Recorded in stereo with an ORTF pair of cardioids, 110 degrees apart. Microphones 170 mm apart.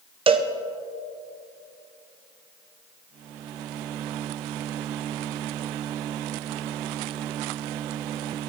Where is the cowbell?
30° right, 1.0 m.